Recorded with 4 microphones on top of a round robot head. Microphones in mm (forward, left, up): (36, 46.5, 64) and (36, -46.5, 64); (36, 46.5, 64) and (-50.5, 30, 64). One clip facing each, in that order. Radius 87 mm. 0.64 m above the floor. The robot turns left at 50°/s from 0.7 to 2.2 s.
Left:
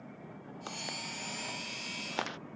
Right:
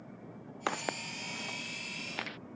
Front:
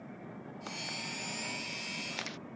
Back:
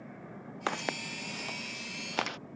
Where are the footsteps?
130° right; by 2.4 s 155° left.